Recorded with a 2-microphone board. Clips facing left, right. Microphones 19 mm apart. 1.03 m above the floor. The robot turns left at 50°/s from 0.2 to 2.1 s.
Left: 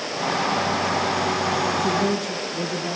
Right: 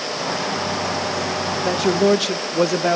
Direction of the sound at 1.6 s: 45° right (ahead or behind).